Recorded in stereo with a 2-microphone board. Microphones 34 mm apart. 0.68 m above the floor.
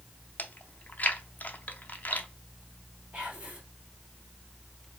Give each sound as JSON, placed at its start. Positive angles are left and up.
{"t": 0.4, "sound": "chewing", "side_deg": 50, "distance_m": 0.6}
{"t": 3.1, "sound": "whispering", "side_deg": -35, "distance_m": 1.8}